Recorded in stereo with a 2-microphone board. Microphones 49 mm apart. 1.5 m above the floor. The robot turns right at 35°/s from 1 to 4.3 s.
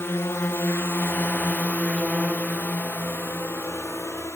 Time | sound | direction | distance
0.0 | a drone | 65° left (ahead or behind) | ?